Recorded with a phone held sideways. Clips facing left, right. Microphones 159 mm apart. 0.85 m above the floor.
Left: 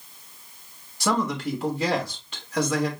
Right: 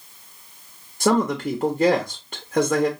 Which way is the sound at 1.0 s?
50° right (ahead or behind).